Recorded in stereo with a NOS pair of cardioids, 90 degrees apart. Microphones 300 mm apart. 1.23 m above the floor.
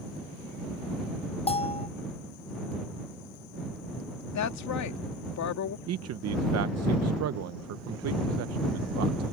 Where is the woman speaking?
70° left.